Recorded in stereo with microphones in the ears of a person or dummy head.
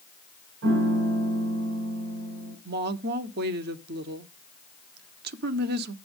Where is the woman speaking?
50° right (ahead or behind), 0.9 m.